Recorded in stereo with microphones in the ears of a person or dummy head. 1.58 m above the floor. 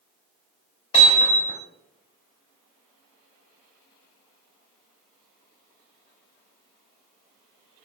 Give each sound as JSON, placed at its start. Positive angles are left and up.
{"t": 0.9, "sound": "hammering", "side_deg": 40, "distance_m": 4.0}